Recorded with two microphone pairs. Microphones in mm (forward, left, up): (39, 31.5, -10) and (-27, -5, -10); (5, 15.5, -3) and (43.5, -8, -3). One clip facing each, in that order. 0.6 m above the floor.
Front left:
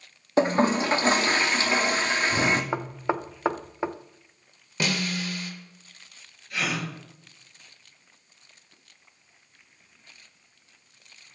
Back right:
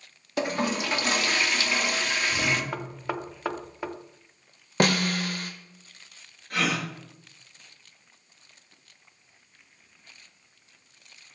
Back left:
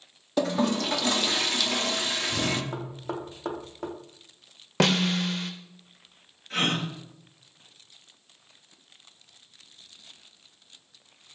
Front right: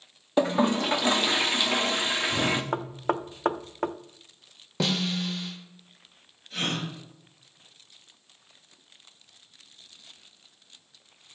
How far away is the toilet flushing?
About 0.9 m.